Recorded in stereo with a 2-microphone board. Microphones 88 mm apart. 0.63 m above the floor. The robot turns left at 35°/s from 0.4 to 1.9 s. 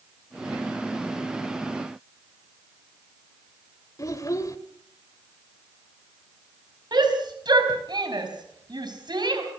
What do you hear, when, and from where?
4.0 s a child speaking: 40° left (ahead or behind), 1.7 m
6.9 s a shout: 55° right (ahead or behind), 4.5 m